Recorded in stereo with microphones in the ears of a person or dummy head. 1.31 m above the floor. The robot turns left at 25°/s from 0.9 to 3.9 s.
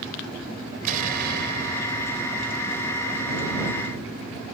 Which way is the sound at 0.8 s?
50° right.